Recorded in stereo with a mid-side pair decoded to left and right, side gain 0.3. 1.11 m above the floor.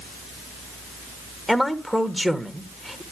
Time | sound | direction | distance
1.5 | a man speaking | straight ahead | 1.8 m